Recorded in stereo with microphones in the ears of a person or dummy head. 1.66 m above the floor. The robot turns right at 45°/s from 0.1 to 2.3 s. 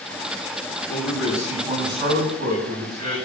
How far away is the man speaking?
About 9.5 m.